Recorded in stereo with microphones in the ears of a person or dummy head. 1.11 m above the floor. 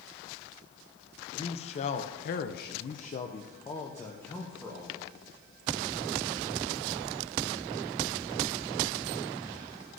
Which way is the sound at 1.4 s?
35° left (ahead or behind).